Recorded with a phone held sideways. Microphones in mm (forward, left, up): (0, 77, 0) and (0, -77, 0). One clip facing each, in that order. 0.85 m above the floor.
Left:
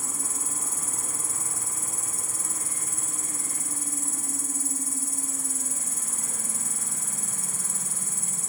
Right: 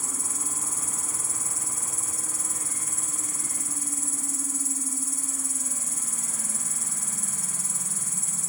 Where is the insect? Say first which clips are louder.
Even; 55° left (ahead or behind), 0.9 m.